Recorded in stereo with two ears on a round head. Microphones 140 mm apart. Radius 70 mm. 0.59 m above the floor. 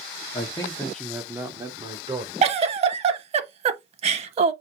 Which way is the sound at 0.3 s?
35° left (ahead or behind).